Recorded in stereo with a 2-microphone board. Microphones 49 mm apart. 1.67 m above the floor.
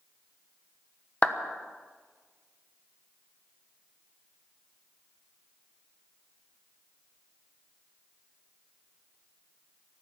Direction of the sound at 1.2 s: 25° left (ahead or behind).